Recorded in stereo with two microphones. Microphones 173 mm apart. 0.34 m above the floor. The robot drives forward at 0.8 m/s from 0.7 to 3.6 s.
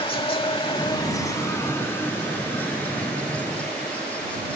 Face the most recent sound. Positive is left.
turn(degrees=5)  # may be behind; listen again after turning